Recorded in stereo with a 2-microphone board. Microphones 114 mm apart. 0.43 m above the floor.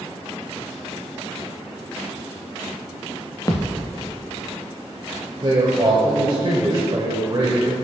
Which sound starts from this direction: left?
A thud, at 3.5 s.